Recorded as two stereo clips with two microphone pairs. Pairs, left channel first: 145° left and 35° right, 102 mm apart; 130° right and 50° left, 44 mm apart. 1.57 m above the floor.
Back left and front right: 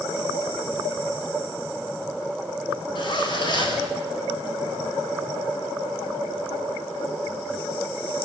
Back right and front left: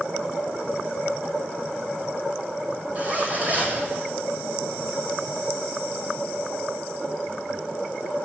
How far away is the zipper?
About 6 m.